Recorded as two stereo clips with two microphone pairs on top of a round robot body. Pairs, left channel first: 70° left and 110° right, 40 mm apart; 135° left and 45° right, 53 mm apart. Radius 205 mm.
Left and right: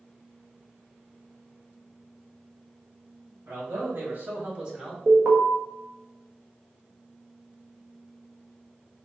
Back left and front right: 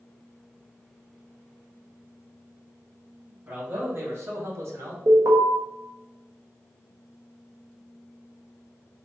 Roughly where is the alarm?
Ahead right.